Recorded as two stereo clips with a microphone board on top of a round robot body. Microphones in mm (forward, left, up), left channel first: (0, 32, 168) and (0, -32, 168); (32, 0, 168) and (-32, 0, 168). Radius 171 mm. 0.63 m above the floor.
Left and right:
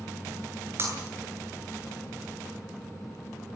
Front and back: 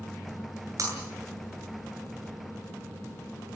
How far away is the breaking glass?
About 8.5 m.